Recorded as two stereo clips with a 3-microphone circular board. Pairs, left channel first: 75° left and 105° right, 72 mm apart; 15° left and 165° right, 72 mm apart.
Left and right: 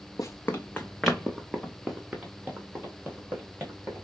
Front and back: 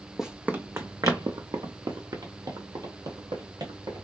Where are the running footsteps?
110° left, 0.6 m; by 4.0 s 165° right, 2.5 m.